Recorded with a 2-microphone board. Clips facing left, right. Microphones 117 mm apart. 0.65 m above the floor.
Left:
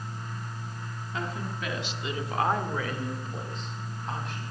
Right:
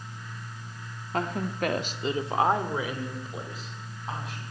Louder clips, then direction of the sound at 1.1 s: Right 6 dB; 50° right (ahead or behind).